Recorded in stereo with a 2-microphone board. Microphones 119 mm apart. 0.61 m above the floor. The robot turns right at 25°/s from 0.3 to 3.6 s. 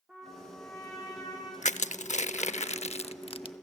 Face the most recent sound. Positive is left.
turn(degrees=45)  # may be behind; listen again after turning